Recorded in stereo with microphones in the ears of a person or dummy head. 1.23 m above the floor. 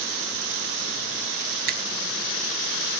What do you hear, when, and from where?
1.7 s a finger snap: 50° right (ahead or behind), 0.8 m